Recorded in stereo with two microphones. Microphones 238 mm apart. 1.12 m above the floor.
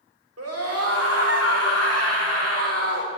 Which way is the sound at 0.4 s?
85° right.